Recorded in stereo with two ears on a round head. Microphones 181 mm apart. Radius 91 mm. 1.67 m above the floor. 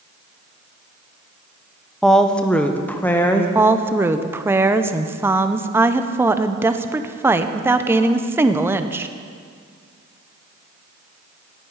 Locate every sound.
2.0 s a woman speaking: centre (ahead or behind), 0.8 m; by 3.5 s 10° left (ahead or behind), 1.5 m
3.5 s a woman speaking: 10° right (ahead or behind), 0.7 m